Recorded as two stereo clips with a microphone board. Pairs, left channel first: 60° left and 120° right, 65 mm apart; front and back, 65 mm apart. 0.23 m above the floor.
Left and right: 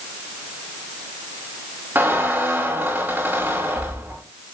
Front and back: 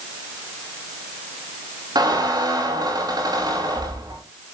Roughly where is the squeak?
Behind.